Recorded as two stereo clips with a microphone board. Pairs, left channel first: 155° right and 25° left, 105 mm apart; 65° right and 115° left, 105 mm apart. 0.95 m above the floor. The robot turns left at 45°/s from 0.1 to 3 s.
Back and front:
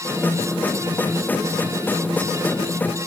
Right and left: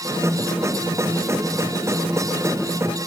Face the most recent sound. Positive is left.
No sound to turn to.